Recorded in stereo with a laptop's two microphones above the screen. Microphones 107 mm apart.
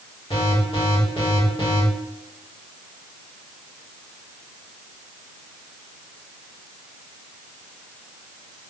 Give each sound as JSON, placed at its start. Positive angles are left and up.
{"t": 0.3, "sound": "an alarm", "side_deg": 55, "distance_m": 6.0}